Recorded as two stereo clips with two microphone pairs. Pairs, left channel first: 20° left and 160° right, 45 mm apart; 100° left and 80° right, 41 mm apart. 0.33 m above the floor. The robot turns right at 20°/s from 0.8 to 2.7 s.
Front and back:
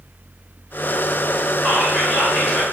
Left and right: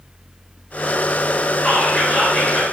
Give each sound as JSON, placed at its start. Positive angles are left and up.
{"t": 1.6, "sound": "whispering", "azimuth_deg": 95, "distance_m": 1.1}